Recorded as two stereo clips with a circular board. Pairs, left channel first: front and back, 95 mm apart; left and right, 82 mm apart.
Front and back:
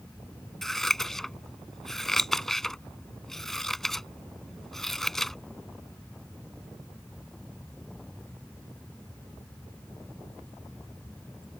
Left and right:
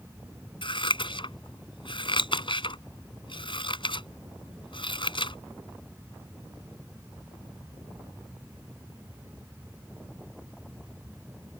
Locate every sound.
0.6 s scissors: 85° left